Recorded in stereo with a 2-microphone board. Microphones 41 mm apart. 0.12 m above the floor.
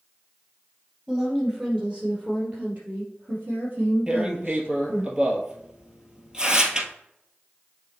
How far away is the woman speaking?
About 3 m.